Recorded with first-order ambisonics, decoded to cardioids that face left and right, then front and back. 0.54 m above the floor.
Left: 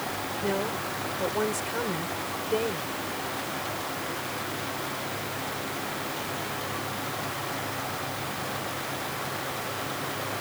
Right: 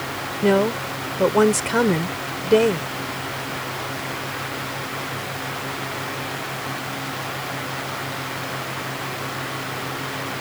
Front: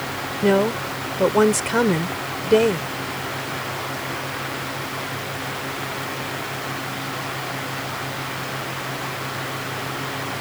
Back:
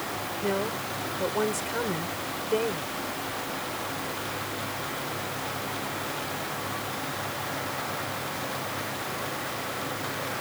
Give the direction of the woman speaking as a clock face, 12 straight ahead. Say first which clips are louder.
Right 12 dB, front 11 dB; 2 o'clock.